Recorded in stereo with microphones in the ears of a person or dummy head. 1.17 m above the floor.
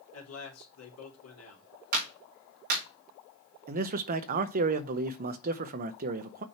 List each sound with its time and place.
0.1 s a man speaking: 80° left, 2.5 m
1.9 s a clap: 45° right (ahead or behind), 2.5 m
3.7 s a man speaking: 45° right (ahead or behind), 0.9 m